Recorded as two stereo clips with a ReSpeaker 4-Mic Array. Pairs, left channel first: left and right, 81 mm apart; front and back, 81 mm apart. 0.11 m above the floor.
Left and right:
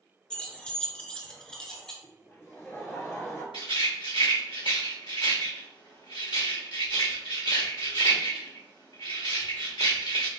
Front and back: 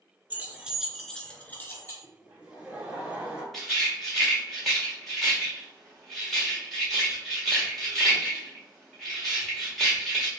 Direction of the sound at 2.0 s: 115° left.